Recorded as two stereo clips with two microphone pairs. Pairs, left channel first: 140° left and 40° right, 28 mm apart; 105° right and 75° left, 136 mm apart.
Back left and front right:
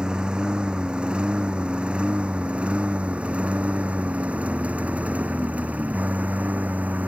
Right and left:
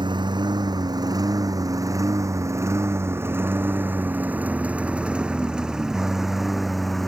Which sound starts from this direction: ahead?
A lawn mower, at 0.0 s.